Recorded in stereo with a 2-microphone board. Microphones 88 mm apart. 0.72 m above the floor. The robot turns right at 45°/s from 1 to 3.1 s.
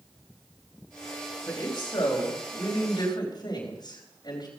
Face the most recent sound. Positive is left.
turn(degrees=130)